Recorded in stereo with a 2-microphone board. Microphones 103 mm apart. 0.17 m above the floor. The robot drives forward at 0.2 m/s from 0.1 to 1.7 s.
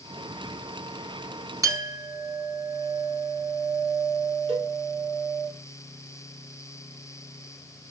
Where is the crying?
No crying in this recording.